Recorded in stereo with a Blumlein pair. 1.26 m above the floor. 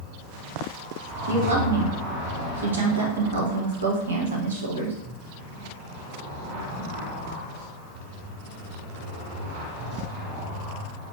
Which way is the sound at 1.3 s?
65° right.